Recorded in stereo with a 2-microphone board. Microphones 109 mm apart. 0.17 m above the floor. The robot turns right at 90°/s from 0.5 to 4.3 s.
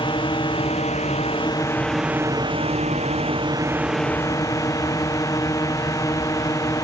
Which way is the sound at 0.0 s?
50° left.